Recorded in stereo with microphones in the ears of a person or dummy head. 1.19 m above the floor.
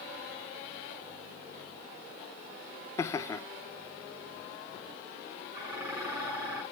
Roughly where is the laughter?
Centre.